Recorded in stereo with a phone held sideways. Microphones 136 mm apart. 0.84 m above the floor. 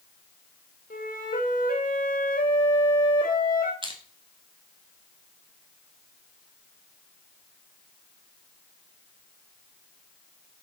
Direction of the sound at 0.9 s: 90° left.